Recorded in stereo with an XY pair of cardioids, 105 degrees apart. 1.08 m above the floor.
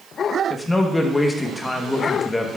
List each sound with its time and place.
0.5 s a man speaking: 15° left, 1.1 m